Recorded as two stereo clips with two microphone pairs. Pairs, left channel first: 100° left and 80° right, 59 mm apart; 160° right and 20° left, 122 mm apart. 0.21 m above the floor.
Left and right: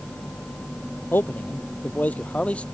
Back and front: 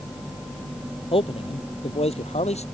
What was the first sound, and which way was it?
A man speaking, 160° left.